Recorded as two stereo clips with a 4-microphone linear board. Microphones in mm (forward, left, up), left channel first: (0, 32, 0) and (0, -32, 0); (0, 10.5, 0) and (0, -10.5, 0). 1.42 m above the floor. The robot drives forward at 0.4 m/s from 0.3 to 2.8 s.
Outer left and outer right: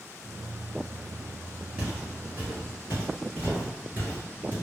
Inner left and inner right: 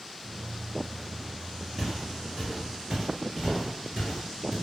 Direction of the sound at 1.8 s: 15° right (ahead or behind).